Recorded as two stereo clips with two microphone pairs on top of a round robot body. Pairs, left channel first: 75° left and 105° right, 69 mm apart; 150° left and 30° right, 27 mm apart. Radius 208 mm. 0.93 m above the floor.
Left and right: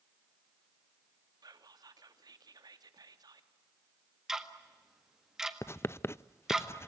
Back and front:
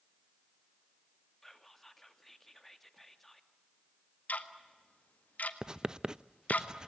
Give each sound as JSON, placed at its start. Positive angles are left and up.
{"t": 1.4, "sound": "whispering", "azimuth_deg": -125, "distance_m": 2.0}
{"t": 4.3, "sound": "ticking", "azimuth_deg": 170, "distance_m": 1.8}
{"t": 5.6, "sound": "writing", "azimuth_deg": 35, "distance_m": 0.6}